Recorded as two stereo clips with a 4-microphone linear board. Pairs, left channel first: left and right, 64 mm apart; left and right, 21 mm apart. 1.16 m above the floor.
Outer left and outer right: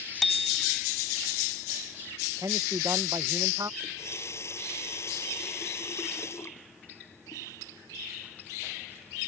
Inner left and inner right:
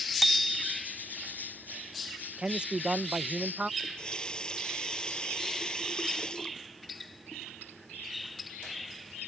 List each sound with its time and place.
0.2 s a bicycle bell: centre (ahead or behind)
2.4 s a man speaking: 65° right (ahead or behind)
3.8 s a running tap: 45° left (ahead or behind)